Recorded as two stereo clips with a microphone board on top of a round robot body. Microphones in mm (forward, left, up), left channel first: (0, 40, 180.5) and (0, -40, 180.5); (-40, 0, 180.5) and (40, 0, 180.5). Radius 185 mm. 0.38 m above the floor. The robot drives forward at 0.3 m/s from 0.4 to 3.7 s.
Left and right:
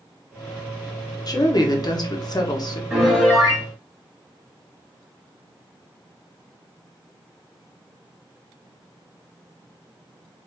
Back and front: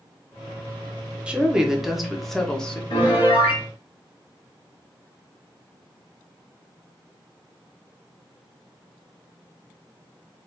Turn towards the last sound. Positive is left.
turn(degrees=180)